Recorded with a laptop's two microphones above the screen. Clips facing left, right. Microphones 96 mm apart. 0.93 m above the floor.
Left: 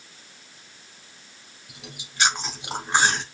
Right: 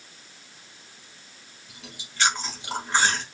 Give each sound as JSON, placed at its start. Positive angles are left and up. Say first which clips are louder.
{"t": 1.7, "sound": "chewing", "louder": "left 2 dB", "side_deg": 20, "distance_m": 1.0}